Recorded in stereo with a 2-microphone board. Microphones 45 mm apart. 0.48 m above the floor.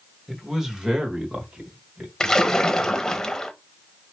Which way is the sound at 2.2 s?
15° left (ahead or behind).